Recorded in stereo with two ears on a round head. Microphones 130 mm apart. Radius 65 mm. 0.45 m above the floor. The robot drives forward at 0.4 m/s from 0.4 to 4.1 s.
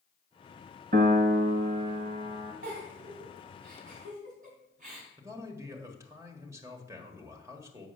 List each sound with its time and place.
0.9 s a piano: 55° right (ahead or behind), 0.9 m; by 2.5 s 35° right (ahead or behind), 1.3 m
2.6 s a giggle: 65° right (ahead or behind), 3 m; by 5.1 s 60° right (ahead or behind), 3 m
5.2 s a man speaking: 20° right (ahead or behind), 1.5 m